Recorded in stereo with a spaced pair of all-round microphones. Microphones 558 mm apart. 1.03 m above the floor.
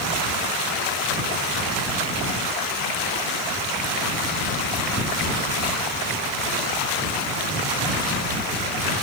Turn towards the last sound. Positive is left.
No sound to turn to.